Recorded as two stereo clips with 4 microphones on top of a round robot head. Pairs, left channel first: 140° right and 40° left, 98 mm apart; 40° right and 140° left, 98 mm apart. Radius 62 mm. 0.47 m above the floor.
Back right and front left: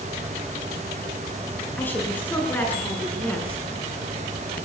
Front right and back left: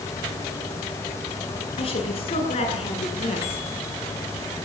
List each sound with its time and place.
1.8 s a woman speaking: 70° right, 9 m; by 3.6 s 65° right, 7.5 m